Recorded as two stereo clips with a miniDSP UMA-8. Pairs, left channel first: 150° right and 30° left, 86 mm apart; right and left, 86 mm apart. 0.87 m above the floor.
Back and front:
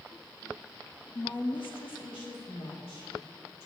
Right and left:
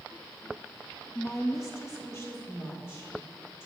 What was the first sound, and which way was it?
A woman speaking, 135° right.